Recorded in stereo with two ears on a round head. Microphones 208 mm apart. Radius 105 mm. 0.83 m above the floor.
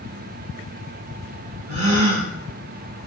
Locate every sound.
1.7 s a gasp: 75° right (ahead or behind), 4 m